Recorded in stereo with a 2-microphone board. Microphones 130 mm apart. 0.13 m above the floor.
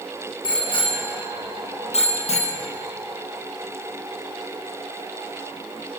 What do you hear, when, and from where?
0.4 s a bicycle bell: 40° left (ahead or behind), 4.5 m; by 2.6 s 70° left (ahead or behind), 2.5 m